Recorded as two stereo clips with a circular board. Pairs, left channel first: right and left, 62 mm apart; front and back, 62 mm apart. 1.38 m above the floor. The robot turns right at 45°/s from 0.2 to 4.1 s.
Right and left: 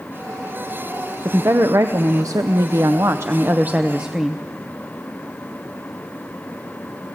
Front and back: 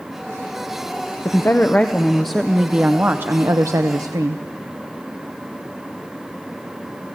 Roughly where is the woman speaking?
Ahead left.